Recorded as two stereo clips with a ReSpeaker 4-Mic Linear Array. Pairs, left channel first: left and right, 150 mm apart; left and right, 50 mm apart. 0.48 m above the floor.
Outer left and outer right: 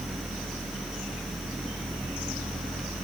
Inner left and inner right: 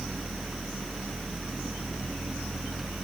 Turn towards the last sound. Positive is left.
No sound to turn to.